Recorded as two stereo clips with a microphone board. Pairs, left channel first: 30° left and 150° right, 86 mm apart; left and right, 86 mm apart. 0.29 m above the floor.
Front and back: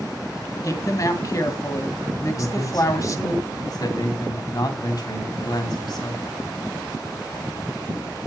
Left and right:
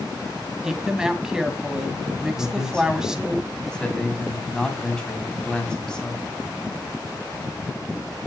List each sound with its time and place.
0.6 s a woman speaking: 10° right, 2.5 m
2.4 s a man speaking: 10° left, 2.5 m